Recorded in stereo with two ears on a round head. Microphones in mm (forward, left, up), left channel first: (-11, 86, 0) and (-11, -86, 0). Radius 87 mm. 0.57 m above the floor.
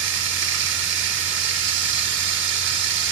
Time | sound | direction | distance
0.0 | running water | 70° right (ahead or behind) | 0.8 m